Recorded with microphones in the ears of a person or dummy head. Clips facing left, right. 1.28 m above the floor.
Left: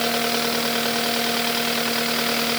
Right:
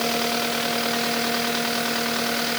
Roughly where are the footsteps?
No footsteps in this recording.